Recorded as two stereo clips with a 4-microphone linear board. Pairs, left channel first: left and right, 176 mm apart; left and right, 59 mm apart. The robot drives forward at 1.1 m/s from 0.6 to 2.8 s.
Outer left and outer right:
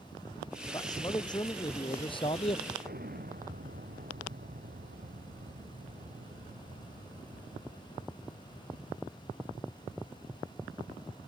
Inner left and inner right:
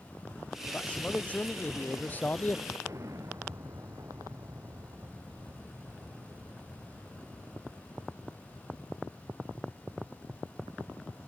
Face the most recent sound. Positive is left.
turn(degrees=-60)  # may be behind; listen again after turning